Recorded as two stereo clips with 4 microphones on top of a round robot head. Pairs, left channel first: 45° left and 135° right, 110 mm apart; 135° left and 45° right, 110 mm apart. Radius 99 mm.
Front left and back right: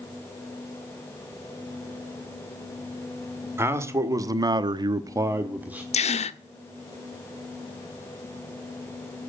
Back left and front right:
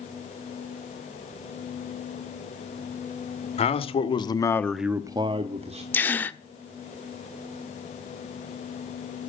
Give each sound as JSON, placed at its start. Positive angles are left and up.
{"t": 3.6, "sound": "a man speaking", "azimuth_deg": 160, "distance_m": 1.8}
{"t": 5.9, "sound": "a gasp", "azimuth_deg": 60, "distance_m": 0.9}